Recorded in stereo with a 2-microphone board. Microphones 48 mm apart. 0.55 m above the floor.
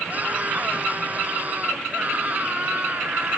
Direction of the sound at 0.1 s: 35° right (ahead or behind).